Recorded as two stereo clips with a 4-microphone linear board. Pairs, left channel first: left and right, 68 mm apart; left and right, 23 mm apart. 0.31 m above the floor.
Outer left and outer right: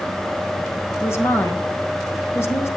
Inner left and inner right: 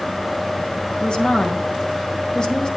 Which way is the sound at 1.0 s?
40° left (ahead or behind).